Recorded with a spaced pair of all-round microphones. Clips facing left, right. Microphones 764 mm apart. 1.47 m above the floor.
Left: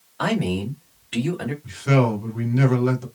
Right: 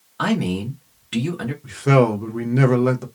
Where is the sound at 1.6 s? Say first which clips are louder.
Right 4 dB; 75° right (ahead or behind), 0.9 m.